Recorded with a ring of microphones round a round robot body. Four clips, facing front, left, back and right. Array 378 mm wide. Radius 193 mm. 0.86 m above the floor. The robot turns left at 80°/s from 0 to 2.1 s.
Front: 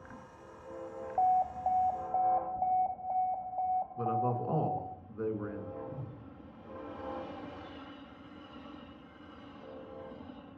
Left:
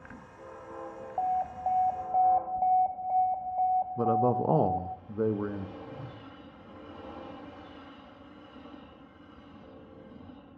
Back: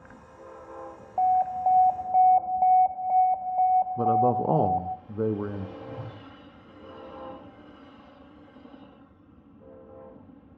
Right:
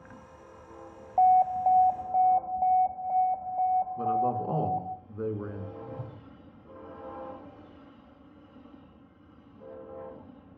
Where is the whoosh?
150° right, 2.5 m.